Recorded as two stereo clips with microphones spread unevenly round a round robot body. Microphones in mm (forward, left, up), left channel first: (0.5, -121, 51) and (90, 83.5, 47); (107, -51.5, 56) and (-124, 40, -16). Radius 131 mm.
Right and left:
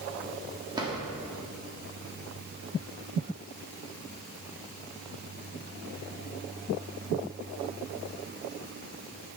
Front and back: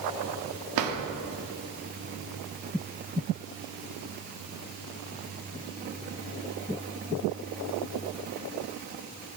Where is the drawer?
140° left, 1.3 m.